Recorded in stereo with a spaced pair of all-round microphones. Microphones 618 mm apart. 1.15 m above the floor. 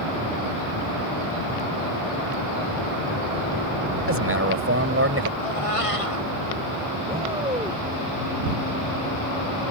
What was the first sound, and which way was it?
A man speaking, 20° right (ahead or behind).